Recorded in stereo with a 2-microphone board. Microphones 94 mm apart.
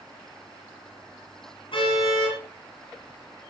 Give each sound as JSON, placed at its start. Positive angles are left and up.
{"t": 1.7, "sound": "a car horn", "side_deg": 60, "distance_m": 9.0}